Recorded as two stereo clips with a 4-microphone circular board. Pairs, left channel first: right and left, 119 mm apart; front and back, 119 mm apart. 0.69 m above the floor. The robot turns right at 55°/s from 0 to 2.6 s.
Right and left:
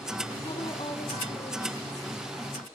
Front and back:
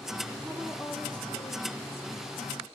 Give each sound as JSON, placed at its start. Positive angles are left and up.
{"t": 0.4, "sound": "a woman speaking", "azimuth_deg": -115, "distance_m": 1.7}